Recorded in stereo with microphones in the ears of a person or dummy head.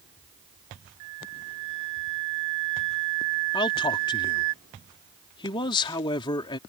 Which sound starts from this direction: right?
A flute, at 1.0 s.